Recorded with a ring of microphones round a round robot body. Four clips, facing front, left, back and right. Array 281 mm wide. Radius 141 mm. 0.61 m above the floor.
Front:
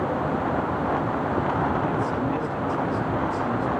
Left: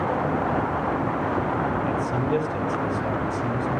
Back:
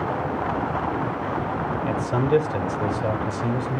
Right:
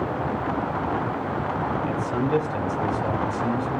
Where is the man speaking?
Straight behind, 3 m.